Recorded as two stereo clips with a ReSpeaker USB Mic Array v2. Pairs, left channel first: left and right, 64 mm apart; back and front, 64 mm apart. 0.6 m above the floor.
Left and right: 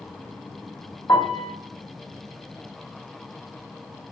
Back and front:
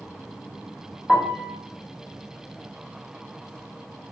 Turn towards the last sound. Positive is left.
turn(degrees=90)